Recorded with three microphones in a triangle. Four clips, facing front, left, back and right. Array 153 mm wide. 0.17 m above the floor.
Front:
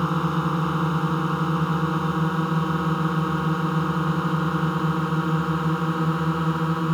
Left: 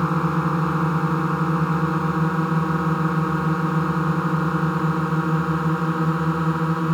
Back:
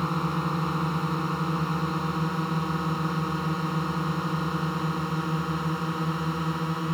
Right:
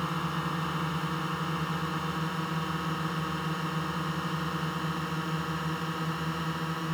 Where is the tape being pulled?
No tape being pulled in this recording.